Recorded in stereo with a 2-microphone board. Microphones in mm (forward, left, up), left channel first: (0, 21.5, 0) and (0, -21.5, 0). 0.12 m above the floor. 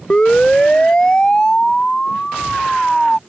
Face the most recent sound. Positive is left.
turn(degrees=10)  # may be behind; listen again after turning